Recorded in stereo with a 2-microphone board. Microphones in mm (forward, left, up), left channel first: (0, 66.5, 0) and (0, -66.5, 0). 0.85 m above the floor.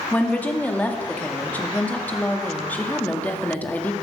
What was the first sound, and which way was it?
A woman speaking, 15° left (ahead or behind).